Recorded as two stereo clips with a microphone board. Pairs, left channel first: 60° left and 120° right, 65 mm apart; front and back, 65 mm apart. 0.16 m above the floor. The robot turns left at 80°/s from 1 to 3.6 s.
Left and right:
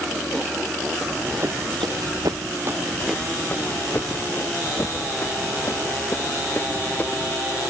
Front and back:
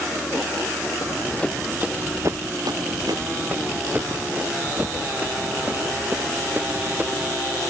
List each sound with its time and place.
1.0 s running footsteps: 40° right; by 7.3 s 115° left